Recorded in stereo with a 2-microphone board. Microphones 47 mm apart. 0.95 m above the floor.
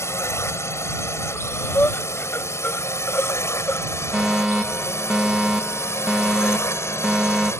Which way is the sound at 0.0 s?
70° left (ahead or behind).